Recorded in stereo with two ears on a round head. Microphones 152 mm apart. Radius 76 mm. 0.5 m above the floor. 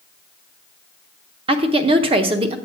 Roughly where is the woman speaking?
Right.